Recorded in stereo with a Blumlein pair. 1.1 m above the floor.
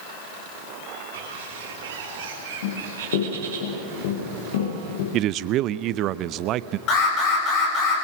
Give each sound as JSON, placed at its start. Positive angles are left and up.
{"t": 1.1, "sound": "a bird", "azimuth_deg": -55, "distance_m": 5.5}
{"t": 2.6, "sound": "running footsteps", "azimuth_deg": 55, "distance_m": 9.0}
{"t": 5.1, "sound": "a man speaking", "azimuth_deg": -35, "distance_m": 0.6}
{"t": 6.9, "sound": "an alarm", "azimuth_deg": 35, "distance_m": 7.0}